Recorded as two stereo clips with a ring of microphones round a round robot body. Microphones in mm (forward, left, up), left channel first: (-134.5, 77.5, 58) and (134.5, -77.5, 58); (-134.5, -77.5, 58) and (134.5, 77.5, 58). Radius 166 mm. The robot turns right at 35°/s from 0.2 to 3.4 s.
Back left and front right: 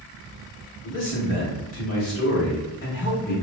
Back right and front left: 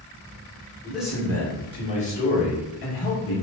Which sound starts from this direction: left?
A man speaking, at 0.8 s.